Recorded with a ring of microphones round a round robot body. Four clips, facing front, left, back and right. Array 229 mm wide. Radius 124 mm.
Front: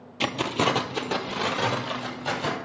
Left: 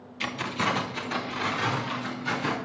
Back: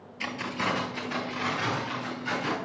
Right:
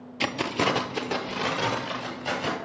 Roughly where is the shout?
I don't hear a shout.